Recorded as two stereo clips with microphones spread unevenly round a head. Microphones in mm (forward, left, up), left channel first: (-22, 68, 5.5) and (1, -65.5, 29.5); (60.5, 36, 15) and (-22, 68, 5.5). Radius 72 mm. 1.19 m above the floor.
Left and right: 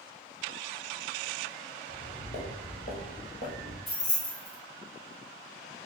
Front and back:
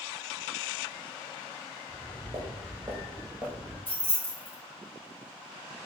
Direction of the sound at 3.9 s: 45° left.